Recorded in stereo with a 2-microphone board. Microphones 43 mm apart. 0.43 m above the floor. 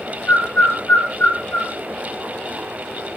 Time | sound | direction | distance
0.3 | a bird | 35° left (ahead or behind) | 6.5 m